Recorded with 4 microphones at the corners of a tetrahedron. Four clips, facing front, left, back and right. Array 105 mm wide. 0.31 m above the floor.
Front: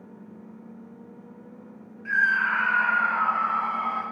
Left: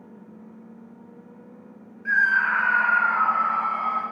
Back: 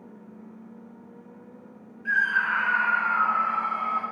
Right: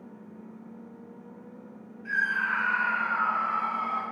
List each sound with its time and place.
2.0 s a scream: 110° left, 2 m; by 4.0 s 65° left, 3.5 m